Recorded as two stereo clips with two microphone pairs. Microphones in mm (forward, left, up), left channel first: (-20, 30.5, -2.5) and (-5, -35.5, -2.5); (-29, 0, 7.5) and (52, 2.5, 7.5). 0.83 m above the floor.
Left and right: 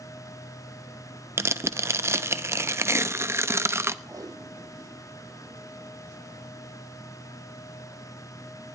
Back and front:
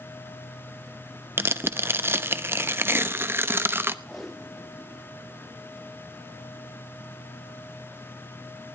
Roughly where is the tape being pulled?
Right.